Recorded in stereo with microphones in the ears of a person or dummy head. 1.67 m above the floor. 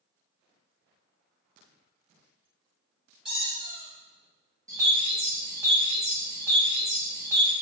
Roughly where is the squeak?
Centre.